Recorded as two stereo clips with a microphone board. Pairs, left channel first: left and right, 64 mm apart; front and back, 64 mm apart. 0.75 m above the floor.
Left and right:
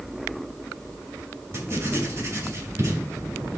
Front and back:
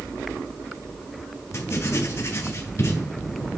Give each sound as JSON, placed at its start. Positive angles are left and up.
{"t": 1.5, "sound": "writing", "azimuth_deg": -40, "distance_m": 2.5}